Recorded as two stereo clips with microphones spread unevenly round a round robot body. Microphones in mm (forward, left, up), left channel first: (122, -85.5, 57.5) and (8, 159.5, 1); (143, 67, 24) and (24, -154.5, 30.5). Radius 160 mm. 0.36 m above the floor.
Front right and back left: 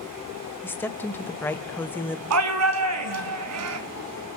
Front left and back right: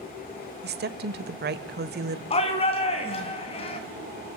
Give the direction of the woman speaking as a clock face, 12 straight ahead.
5 o'clock.